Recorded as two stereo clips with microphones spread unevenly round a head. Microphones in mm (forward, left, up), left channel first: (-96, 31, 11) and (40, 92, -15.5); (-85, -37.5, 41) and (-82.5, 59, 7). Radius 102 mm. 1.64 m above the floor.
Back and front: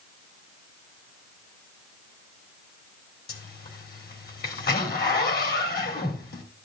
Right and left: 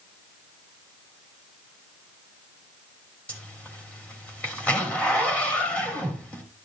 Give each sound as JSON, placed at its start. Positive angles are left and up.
{"t": 3.3, "sound": "a zipper", "azimuth_deg": -170, "distance_m": 3.5}